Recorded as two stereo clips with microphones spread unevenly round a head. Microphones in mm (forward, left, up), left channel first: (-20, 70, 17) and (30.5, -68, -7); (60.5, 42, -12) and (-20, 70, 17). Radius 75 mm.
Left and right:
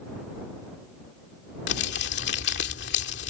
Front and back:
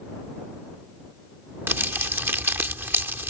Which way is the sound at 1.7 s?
100° left.